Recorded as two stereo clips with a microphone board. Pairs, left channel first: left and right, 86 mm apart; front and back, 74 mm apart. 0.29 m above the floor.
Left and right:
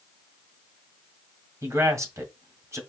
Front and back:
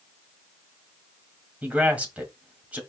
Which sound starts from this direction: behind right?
A man speaking, at 1.6 s.